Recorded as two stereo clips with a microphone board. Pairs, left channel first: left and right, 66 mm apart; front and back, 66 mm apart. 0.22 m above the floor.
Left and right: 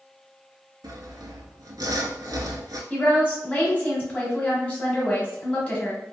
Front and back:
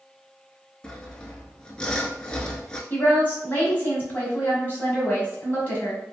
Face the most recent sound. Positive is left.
turn(degrees=35)